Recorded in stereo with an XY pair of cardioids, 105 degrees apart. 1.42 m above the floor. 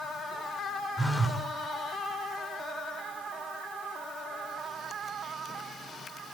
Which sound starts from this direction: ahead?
A phone buzzing, at 1.0 s.